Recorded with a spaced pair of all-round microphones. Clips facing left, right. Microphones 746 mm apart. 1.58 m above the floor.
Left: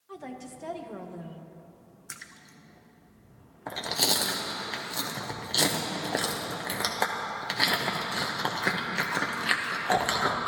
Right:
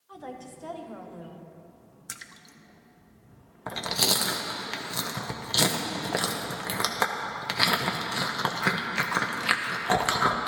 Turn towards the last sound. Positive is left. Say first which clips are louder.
# right 1 dB
turn(degrees=-40)  # may be behind; listen again after turning